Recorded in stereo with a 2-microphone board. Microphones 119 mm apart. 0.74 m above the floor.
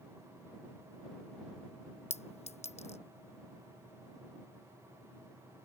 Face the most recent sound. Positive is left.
turn(degrees=65)  # may be behind; listen again after turning